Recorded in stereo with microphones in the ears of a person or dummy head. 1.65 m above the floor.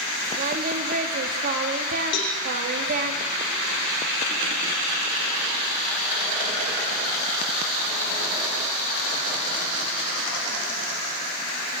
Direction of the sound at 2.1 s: 60° left (ahead or behind).